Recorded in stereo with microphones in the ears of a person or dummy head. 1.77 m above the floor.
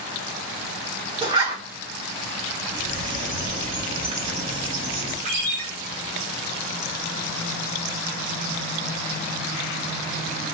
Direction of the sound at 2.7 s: 35° right (ahead or behind).